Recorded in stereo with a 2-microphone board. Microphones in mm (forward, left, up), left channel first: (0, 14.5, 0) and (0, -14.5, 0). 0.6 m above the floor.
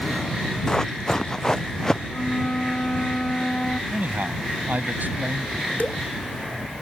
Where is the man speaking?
70° right (ahead or behind).